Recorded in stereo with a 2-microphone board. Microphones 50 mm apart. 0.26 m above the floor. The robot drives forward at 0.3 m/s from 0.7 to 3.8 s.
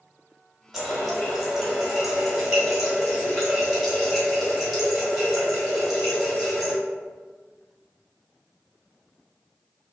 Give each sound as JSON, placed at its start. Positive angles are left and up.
{"t": 0.7, "sound": "a running tap", "side_deg": 0, "distance_m": 0.8}